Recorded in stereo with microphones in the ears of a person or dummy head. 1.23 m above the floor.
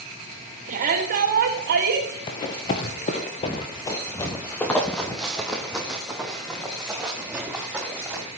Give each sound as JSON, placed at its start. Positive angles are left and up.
{"t": 0.7, "sound": "a shout", "side_deg": -45, "distance_m": 2.5}
{"t": 2.3, "sound": "running footsteps", "side_deg": 25, "distance_m": 1.4}